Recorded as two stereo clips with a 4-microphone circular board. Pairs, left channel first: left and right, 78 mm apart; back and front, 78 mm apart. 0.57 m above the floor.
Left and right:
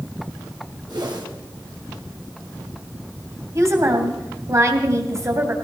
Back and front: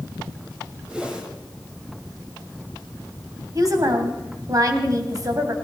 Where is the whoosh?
75° right, 3 m.